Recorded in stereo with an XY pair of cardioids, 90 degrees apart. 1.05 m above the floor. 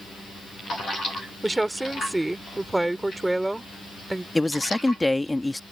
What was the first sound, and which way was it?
A woman speaking, 15° right.